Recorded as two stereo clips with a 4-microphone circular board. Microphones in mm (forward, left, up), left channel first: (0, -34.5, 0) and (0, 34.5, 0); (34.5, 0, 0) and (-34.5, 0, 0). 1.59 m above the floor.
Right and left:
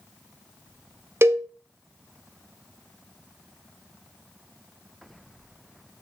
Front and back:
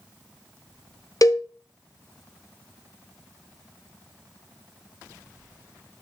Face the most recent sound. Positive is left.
turn(degrees=35)